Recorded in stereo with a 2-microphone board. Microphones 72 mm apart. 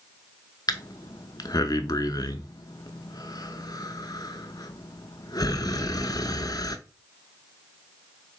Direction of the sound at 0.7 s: 65° left (ahead or behind).